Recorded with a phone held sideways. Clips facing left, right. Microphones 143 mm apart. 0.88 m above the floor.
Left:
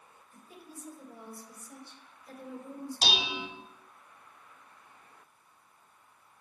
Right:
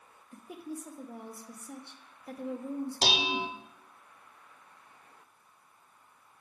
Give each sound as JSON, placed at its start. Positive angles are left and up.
{"t": 0.3, "sound": "a woman speaking", "side_deg": -70, "distance_m": 0.8}
{"t": 3.0, "sound": "dishes clattering", "side_deg": -60, "distance_m": 0.9}